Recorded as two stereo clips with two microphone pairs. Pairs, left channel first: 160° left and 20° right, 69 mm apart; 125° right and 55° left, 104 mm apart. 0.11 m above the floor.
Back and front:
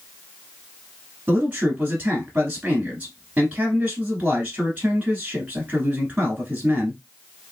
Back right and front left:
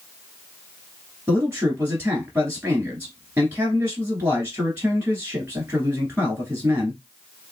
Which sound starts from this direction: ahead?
A man speaking, at 1.3 s.